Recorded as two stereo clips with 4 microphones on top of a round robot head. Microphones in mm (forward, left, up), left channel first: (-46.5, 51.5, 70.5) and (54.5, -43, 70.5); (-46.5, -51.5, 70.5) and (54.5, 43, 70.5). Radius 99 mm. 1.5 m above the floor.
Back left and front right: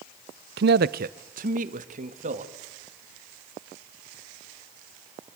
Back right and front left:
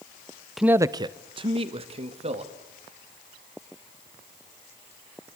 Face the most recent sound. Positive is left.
turn(degrees=-5)